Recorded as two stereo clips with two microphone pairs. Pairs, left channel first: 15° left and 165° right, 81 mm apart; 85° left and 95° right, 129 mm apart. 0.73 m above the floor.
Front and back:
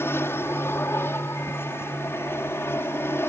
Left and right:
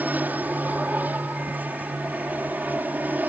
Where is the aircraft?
25° right.